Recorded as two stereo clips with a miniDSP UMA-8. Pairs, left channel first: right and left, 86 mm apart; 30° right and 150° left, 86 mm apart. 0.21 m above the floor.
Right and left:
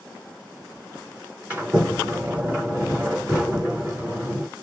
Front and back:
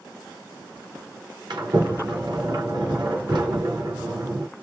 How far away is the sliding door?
About 2.5 m.